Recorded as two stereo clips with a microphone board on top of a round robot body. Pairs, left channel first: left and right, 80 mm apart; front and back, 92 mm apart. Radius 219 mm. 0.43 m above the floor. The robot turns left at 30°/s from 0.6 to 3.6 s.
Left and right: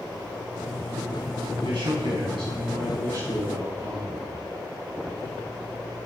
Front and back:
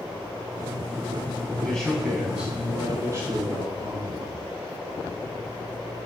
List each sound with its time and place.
1.6 s a man speaking: 80° right, 5.5 m; by 4.4 s 135° right, 5.5 m